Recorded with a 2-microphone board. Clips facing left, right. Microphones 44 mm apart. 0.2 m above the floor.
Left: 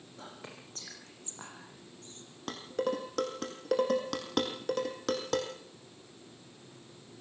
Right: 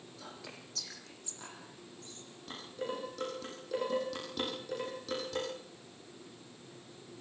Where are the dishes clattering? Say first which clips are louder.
Left 7 dB; 70° left (ahead or behind), 5 m.